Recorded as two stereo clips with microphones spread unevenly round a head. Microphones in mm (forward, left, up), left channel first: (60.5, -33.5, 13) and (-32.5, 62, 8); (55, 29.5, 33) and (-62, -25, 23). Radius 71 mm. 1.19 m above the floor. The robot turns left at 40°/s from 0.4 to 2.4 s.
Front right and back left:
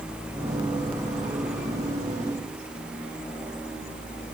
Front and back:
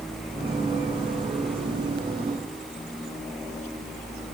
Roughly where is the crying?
No crying in this recording.